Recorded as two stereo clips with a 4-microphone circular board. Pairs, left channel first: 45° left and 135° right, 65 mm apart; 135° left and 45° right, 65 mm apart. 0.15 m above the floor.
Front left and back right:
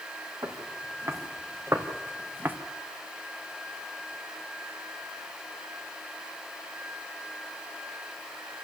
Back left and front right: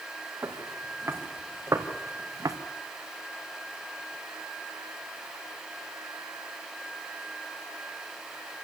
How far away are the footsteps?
About 4.5 m.